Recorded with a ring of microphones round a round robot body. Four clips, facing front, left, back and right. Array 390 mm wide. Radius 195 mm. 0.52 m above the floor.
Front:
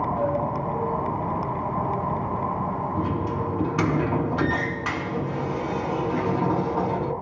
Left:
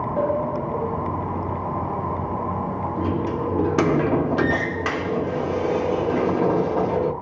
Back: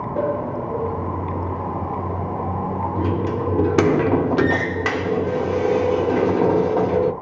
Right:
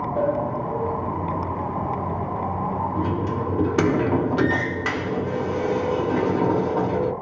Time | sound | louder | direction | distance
0.2 | a sliding door | even, back 2 dB | straight behind | 1.3 m